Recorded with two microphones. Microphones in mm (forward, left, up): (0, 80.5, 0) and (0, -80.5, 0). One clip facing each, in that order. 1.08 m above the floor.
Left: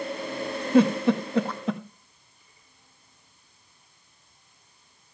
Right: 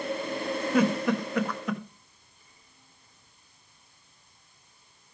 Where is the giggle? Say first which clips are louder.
Left 6 dB; 30° left (ahead or behind), 1.2 m.